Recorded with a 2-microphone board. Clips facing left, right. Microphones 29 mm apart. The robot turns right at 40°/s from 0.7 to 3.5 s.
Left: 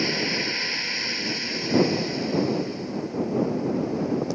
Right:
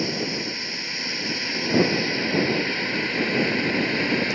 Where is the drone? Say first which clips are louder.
Left 2 dB; 15° left (ahead or behind); by 4.4 s 75° right (ahead or behind).